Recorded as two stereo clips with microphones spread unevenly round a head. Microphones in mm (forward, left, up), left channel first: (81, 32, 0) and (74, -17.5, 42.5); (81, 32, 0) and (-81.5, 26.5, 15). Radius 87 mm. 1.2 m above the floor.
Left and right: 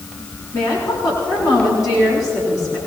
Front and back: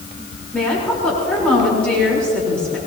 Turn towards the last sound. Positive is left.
turn(degrees=85)